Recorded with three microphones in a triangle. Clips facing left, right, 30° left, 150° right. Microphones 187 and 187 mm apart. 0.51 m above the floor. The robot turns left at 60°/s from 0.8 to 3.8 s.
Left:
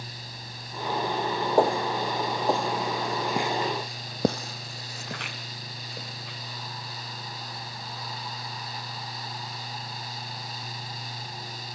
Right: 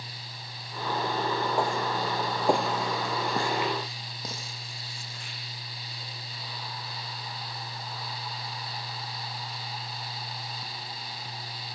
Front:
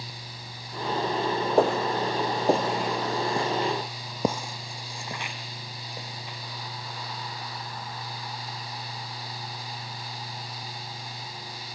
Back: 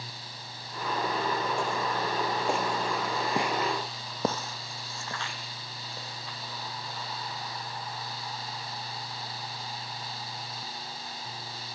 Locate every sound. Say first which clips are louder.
1.6 s footsteps: left 5 dB, front 8 dB; 50° left, 1.7 m; by 6.4 s 100° left, 3.5 m